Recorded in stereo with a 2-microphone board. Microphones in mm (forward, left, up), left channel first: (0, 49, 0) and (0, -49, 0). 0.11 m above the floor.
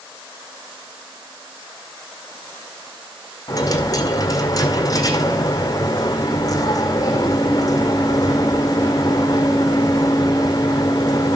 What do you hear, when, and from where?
3.5 s a dropped coin: 35° left (ahead or behind), 1.5 m